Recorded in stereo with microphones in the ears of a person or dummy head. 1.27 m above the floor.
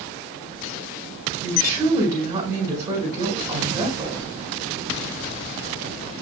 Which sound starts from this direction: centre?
A woman speaking, at 1.4 s.